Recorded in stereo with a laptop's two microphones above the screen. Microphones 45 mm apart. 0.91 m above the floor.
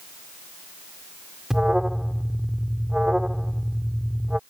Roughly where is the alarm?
Centre.